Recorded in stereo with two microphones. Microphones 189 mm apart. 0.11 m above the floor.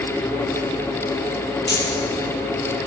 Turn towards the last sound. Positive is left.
turn(degrees=65)  # may be behind; listen again after turning